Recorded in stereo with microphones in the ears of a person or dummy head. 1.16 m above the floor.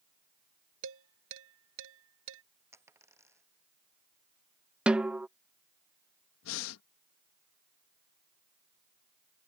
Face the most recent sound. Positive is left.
turn(degrees=80)